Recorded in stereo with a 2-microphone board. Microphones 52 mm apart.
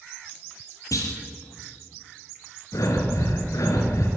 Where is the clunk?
85° left, 4 m.